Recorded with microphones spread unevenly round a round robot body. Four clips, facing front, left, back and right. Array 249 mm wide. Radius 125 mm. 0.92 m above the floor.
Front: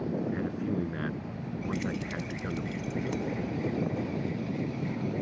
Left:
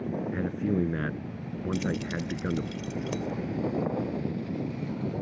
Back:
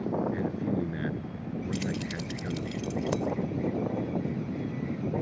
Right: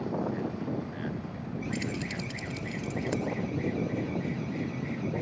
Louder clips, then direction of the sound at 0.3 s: Left 4 dB, back 1 dB; 90° left.